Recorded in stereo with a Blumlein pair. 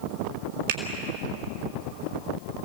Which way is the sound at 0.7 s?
55° right.